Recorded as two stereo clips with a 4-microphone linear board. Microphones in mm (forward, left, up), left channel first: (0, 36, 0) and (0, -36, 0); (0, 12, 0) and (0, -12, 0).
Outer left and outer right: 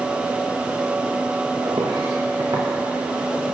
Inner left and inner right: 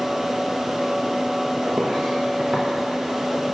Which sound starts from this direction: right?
Footsteps, at 1.6 s.